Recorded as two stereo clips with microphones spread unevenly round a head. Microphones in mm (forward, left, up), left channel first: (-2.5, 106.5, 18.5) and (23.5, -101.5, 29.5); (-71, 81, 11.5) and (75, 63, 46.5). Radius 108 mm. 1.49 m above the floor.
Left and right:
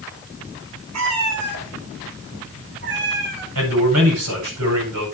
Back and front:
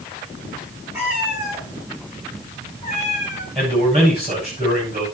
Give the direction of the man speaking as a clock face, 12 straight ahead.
2 o'clock.